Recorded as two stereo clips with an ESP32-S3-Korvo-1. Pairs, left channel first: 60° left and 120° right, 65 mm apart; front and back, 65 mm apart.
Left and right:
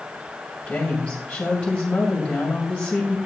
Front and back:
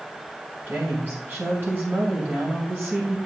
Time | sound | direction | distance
0.7 | a woman speaking | 130° left | 2 m